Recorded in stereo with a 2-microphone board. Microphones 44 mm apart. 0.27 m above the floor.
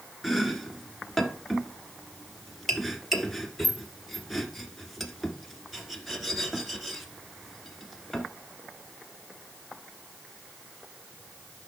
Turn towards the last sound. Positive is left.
turn(degrees=0)  # may be behind; listen again after turning